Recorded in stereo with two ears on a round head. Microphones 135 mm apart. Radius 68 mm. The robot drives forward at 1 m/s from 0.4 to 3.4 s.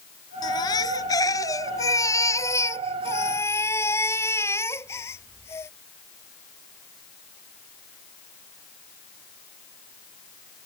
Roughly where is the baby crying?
Left.